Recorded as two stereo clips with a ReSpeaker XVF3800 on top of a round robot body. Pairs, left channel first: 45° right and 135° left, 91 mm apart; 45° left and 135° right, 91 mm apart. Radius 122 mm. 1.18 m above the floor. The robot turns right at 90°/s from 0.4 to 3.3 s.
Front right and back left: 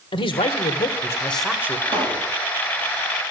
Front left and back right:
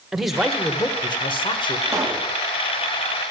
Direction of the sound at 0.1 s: 50° right.